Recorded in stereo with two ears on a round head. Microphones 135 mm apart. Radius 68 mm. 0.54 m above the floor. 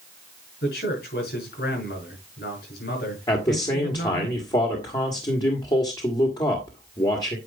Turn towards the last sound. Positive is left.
turn(degrees=30)  # may be behind; listen again after turning